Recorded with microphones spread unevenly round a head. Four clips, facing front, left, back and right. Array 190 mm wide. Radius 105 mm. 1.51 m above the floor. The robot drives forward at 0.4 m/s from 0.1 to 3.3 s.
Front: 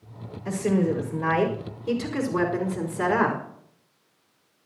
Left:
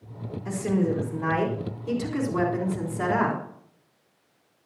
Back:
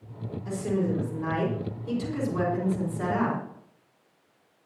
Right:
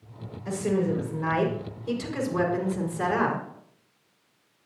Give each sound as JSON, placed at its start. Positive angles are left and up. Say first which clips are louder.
{"t": 0.5, "sound": "a woman speaking", "louder": "even, front 4 dB", "azimuth_deg": 5, "distance_m": 5.5}